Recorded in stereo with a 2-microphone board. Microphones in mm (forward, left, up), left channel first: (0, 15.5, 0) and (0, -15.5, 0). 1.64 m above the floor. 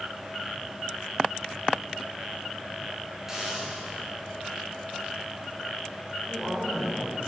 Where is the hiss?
15° right (ahead or behind), 4 m.